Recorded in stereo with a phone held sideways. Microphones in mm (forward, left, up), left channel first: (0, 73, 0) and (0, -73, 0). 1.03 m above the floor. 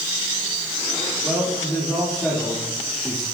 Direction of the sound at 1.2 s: 5° left (ahead or behind).